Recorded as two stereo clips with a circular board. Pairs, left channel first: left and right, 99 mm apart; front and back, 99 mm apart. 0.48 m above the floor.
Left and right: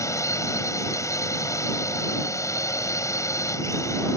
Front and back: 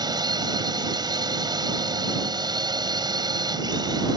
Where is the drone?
145° left.